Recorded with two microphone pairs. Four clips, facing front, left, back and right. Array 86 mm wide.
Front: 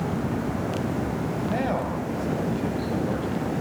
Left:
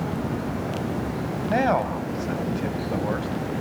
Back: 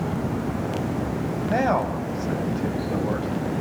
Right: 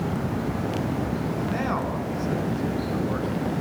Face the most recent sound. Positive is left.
turn(degrees=110)